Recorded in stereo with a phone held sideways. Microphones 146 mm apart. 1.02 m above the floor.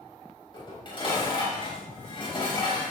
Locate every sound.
0.5 s dishes clattering: 35° left (ahead or behind), 4 m